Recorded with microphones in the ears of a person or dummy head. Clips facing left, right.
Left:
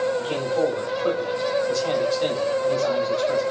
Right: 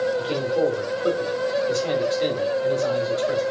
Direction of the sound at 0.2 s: 15° right (ahead or behind).